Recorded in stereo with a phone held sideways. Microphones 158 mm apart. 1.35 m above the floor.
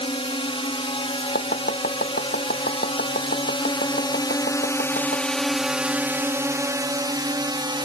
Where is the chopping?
80° left.